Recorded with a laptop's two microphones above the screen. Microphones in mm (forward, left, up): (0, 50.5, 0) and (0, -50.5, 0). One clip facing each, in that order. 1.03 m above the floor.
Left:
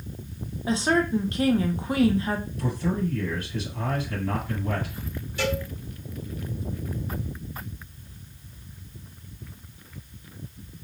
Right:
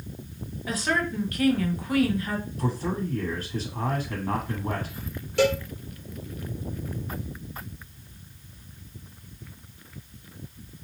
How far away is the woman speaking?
About 0.6 m.